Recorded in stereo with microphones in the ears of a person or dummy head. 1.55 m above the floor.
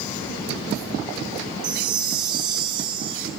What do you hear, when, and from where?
1.6 s a chime: 30° right (ahead or behind), 3 m